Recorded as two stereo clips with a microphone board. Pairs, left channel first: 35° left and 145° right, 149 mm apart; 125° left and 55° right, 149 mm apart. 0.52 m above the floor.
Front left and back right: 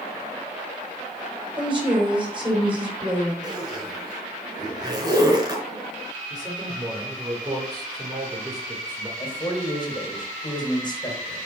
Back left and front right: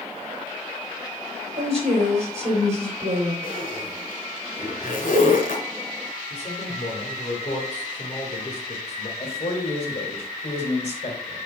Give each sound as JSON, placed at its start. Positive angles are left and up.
{"t": 1.6, "sound": "a woman speaking", "azimuth_deg": -95, "distance_m": 3.0}
{"t": 3.4, "sound": "a zipper", "azimuth_deg": 150, "distance_m": 3.0}
{"t": 6.3, "sound": "a man speaking", "azimuth_deg": 155, "distance_m": 2.0}
{"t": 9.2, "sound": "a man speaking", "azimuth_deg": 90, "distance_m": 2.5}